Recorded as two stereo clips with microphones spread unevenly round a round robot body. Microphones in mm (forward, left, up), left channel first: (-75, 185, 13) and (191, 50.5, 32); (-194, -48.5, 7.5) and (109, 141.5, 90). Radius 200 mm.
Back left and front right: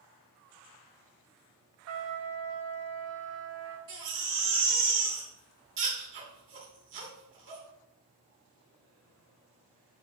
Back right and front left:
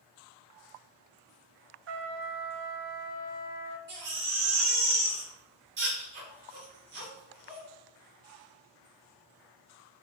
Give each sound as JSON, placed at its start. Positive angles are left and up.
{"t": 1.9, "sound": "a trumpet", "azimuth_deg": -25, "distance_m": 0.6}
{"t": 3.9, "sound": "a baby crying", "azimuth_deg": -35, "distance_m": 1.5}